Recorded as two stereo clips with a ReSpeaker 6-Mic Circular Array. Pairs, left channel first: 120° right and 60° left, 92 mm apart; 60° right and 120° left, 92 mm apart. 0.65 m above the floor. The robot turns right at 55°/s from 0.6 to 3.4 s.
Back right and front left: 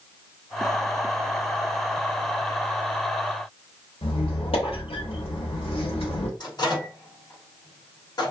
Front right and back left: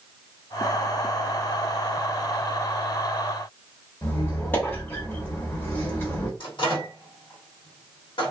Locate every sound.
4.0 s a squeak: 125° right, 0.9 m
6.4 s a microwave: 80° right, 1.4 m